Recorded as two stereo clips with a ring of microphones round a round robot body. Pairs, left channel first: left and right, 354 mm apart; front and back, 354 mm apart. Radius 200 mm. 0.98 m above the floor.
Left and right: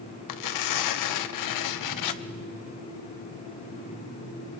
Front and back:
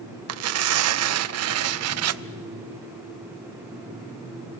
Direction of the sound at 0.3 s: 135° left.